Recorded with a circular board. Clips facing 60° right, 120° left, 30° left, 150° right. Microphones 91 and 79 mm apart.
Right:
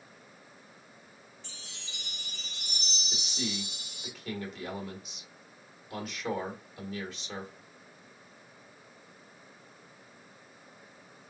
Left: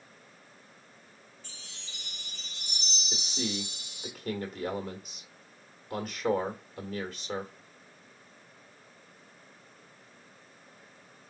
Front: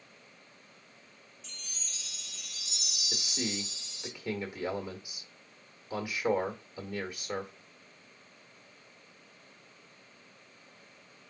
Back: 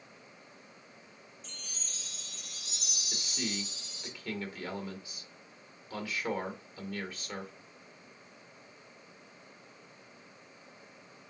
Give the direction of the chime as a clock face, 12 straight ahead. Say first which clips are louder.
Right 2 dB, even; 6 o'clock.